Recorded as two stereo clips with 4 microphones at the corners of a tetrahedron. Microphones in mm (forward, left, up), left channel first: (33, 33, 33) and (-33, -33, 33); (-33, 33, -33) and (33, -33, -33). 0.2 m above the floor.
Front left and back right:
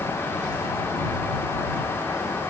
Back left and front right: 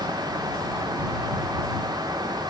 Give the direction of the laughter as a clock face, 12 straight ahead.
No laughter in this recording.